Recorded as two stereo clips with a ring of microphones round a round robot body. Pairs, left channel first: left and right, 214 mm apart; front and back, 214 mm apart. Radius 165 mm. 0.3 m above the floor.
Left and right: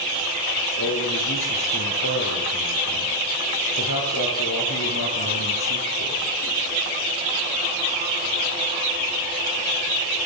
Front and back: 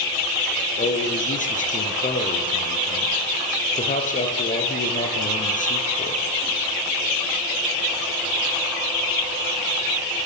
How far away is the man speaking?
About 8 m.